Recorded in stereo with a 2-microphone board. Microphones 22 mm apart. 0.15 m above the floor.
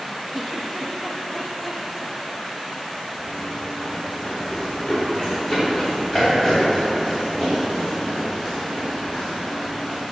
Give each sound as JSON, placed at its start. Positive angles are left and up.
{"t": 0.3, "sound": "a giggle", "side_deg": 0, "distance_m": 4.0}
{"t": 3.2, "sound": "running footsteps", "side_deg": 40, "distance_m": 4.5}